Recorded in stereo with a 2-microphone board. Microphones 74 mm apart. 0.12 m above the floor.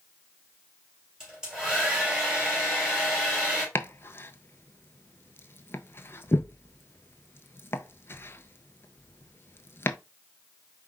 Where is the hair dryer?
10° right (ahead or behind), 3 m.